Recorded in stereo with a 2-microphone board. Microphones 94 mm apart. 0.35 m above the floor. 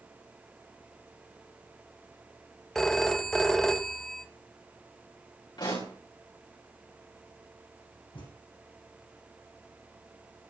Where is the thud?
85° left, 8.5 m.